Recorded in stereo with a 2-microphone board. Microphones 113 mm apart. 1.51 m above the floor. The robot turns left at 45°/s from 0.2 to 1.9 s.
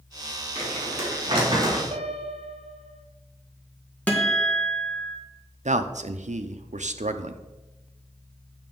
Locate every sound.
0.6 s crumpling: 80° right, 3 m; by 1.8 s 140° right, 3 m
1.9 s a piano: 60° right (ahead or behind), 0.7 m
4.1 s a guitar: 10° left (ahead or behind), 1.4 m
5.7 s a man speaking: 85° right, 0.6 m